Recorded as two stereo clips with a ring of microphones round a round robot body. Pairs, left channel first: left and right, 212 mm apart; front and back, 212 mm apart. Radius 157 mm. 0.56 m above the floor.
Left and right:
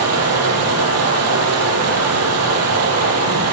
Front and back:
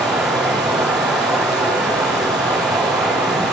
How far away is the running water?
About 9.5 m.